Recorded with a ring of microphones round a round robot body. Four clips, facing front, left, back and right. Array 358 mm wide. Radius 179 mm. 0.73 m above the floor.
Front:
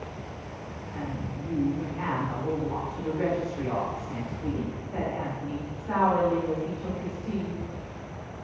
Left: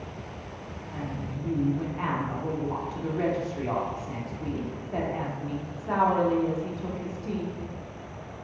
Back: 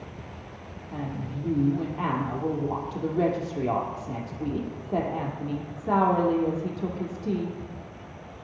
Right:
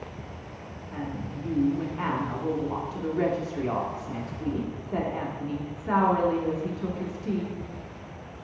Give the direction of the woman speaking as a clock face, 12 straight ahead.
5 o'clock.